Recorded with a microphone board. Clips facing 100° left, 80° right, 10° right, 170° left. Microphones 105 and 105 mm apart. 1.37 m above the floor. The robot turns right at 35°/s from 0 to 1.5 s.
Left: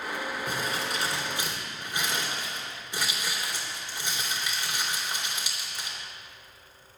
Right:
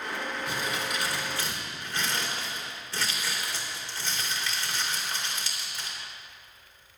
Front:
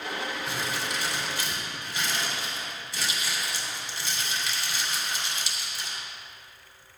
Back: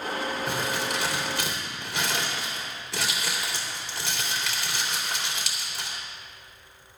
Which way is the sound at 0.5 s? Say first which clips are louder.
Left 1 dB, back 3 dB; 140° left.